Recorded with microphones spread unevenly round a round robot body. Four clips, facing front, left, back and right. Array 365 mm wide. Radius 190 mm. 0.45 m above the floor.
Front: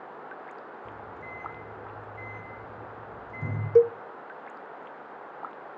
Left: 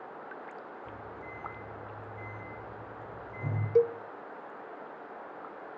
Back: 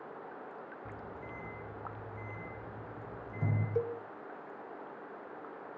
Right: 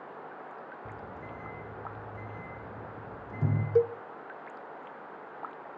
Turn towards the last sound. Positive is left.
turn(degrees=5)